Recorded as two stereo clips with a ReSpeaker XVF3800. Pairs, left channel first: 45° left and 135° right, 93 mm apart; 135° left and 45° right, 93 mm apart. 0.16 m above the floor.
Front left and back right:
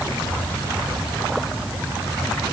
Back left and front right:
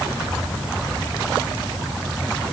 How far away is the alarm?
No alarm in this recording.